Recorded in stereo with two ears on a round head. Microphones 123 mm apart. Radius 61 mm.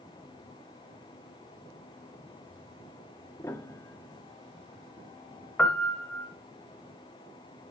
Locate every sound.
3.4 s a piano: 20° left (ahead or behind), 0.6 m
5.6 s a piano: 10° left (ahead or behind), 1.1 m